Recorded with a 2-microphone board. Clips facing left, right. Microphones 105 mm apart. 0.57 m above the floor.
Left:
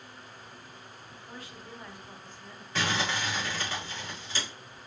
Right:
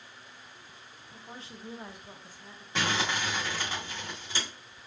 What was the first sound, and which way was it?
A woman speaking, 30° right (ahead or behind).